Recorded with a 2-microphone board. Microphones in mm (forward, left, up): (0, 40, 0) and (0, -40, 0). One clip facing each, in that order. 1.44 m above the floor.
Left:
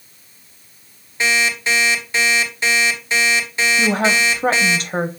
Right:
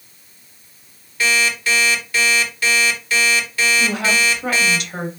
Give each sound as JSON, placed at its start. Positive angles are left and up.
{"t": 1.2, "sound": "an alarm clock", "side_deg": 25, "distance_m": 2.0}
{"t": 3.8, "sound": "a woman speaking", "side_deg": 40, "distance_m": 0.8}